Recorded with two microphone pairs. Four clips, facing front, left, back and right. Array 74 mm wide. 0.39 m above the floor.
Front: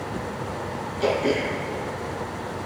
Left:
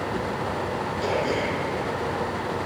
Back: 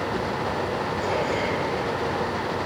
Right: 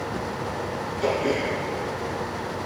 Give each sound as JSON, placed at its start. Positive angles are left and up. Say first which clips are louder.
{"t": 1.0, "sound": "throat clearing", "louder": "right 2 dB, front 5 dB", "azimuth_deg": -15, "distance_m": 8.0}